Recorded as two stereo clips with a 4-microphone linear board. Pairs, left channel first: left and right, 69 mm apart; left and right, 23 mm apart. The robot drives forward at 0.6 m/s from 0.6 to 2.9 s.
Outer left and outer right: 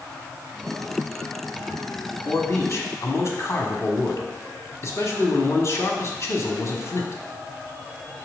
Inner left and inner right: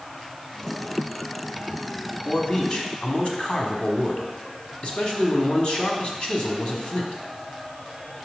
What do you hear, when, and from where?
2.2 s a man speaking: 45° left (ahead or behind), 1.3 m